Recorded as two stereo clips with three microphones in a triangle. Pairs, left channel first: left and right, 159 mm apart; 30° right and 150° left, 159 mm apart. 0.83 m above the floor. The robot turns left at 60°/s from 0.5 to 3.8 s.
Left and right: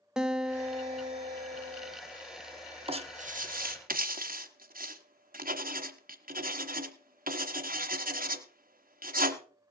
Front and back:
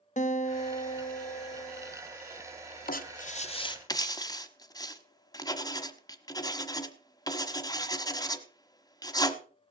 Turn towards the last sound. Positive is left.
turn(degrees=-95)